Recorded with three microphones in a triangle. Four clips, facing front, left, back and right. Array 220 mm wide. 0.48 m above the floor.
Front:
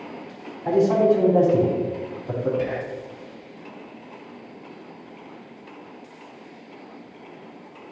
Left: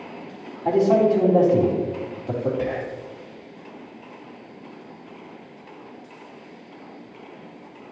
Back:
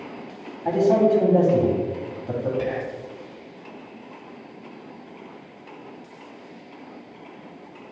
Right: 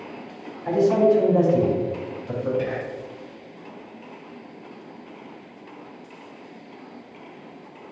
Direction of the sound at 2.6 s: 115° left.